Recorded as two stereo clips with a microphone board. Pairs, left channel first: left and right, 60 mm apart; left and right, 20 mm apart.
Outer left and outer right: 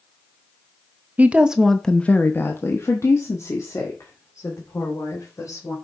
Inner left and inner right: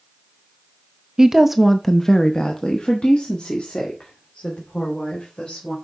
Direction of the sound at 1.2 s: 25° right (ahead or behind).